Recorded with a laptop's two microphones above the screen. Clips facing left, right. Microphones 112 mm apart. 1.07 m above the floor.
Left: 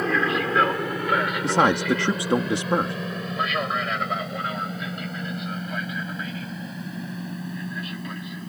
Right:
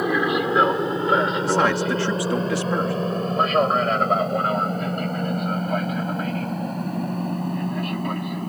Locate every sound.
0.0 s an aircraft: 15° right (ahead or behind); by 8.5 s 55° right (ahead or behind)
1.4 s a man speaking: 20° left (ahead or behind)